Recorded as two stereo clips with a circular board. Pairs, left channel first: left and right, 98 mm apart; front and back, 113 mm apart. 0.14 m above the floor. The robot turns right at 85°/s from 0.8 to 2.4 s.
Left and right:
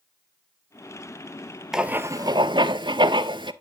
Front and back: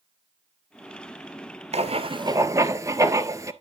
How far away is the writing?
About 0.6 m.